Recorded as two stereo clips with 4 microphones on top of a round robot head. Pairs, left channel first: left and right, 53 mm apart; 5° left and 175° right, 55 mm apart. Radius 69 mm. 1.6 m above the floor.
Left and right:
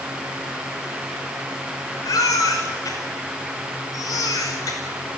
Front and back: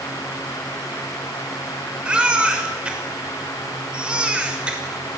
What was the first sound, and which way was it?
A baby crying, 110° left.